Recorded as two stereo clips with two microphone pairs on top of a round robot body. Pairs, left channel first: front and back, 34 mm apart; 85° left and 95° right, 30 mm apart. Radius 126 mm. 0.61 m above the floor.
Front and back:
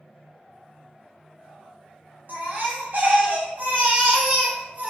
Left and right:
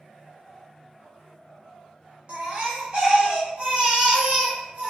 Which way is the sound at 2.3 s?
145° right.